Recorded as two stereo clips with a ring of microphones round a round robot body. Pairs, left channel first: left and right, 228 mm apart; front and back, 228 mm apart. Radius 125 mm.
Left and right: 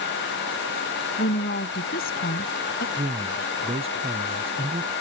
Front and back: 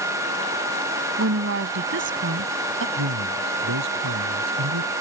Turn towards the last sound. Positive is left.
turn(degrees=-160)